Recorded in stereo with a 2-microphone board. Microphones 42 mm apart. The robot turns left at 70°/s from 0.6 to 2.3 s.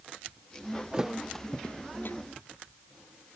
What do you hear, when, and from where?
0.9 s a thud: 20° right (ahead or behind); by 2.2 s 65° left (ahead or behind)